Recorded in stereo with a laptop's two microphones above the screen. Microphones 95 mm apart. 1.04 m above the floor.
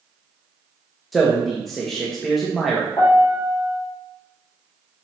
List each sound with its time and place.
1.1 s a man speaking: centre (ahead or behind), 1.3 m
3.0 s a piano: 35° left (ahead or behind), 3 m